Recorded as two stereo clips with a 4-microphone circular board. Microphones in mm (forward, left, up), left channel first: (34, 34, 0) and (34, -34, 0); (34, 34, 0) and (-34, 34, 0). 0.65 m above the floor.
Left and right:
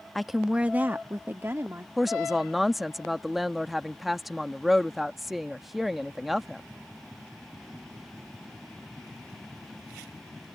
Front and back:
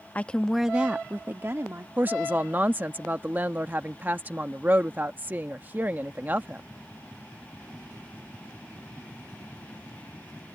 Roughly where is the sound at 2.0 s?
Behind.